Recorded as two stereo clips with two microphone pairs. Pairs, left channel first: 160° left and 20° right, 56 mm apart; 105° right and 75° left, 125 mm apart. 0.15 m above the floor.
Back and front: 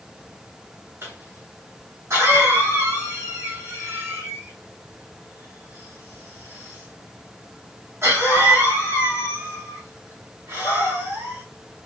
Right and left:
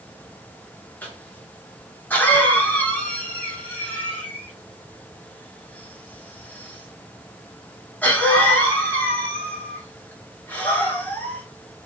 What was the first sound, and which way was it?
A cough, 35° right.